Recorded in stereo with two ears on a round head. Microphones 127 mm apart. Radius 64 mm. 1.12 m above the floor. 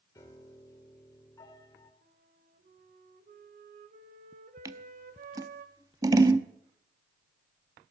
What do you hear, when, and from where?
0.1 s a piano: 25° left (ahead or behind), 2 m
2.0 s a flute: 60° right (ahead or behind), 1.4 m
4.7 s scissors: 25° right (ahead or behind), 0.7 m